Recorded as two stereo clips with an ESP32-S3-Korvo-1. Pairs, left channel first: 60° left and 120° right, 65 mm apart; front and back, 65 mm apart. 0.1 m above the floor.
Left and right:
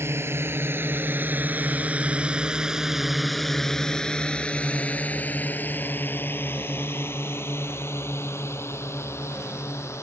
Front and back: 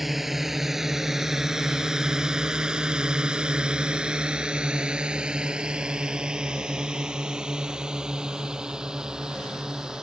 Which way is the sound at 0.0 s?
95° right.